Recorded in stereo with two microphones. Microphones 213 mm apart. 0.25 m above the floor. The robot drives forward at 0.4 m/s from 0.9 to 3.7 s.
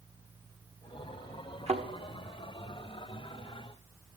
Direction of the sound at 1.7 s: 30° right (ahead or behind).